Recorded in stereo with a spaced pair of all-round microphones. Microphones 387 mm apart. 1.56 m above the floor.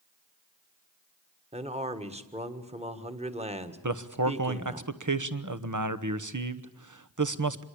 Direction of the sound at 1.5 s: 15° right (ahead or behind).